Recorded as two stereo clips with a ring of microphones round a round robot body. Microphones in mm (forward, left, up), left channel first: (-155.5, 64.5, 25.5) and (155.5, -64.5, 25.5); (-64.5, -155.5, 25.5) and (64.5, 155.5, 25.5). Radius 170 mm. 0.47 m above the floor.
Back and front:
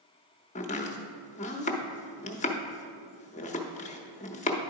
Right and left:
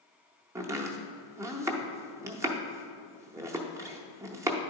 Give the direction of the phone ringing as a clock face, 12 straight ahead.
I don't hear a phone ringing.